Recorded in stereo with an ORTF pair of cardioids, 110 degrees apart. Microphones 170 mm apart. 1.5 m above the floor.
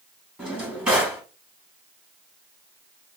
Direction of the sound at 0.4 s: 10° right.